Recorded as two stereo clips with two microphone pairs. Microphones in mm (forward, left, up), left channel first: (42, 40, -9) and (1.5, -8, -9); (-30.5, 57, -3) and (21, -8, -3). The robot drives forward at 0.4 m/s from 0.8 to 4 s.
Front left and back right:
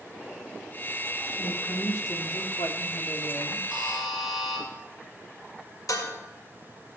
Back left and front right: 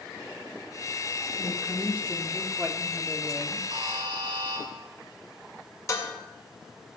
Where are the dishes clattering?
80° left, 2.0 m.